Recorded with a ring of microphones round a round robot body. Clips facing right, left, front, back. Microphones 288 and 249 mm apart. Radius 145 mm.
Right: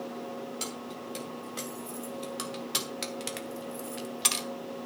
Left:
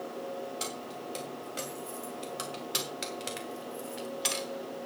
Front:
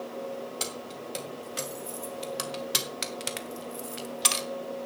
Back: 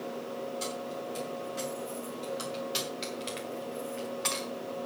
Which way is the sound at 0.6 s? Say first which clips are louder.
Right 1 dB, back 2 dB; 5° right.